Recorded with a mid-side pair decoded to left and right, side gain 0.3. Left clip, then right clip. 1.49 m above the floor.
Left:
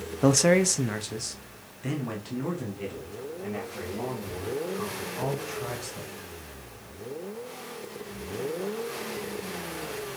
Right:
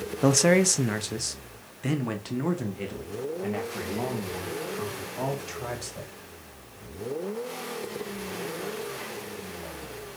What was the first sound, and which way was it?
A man speaking, straight ahead.